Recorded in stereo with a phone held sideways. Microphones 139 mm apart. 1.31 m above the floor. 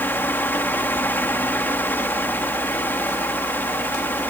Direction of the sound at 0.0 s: 15° left (ahead or behind).